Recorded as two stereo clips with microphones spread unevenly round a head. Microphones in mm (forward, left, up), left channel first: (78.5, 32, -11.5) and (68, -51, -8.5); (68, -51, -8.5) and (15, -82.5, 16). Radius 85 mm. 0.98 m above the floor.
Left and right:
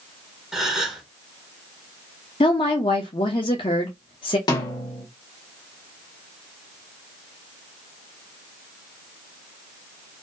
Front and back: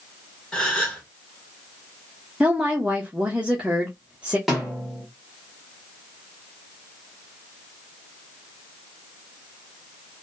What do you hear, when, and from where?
0.5 s a gasp: 15° right, 1.2 m
2.4 s a woman speaking: 120° left, 0.5 m
4.5 s a snare drum: 105° left, 0.8 m